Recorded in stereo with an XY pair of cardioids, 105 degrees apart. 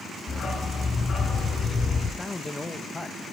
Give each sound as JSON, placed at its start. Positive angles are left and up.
{"t": 0.3, "sound": "a dog barking", "azimuth_deg": 40, "distance_m": 6.0}
{"t": 2.2, "sound": "a man speaking", "azimuth_deg": 20, "distance_m": 1.4}